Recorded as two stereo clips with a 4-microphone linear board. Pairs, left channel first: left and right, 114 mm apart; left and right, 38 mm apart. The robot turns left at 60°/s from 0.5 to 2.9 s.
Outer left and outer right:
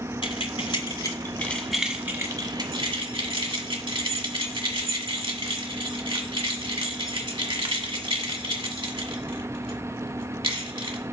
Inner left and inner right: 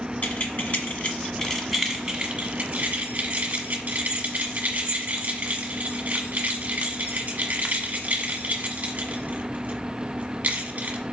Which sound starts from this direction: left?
Keys jangling, at 0.2 s.